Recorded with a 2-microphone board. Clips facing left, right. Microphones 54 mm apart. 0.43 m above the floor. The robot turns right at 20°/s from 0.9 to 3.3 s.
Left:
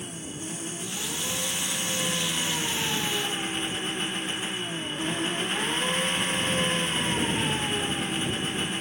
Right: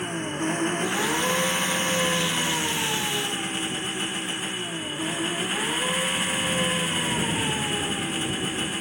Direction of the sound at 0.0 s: 55° right.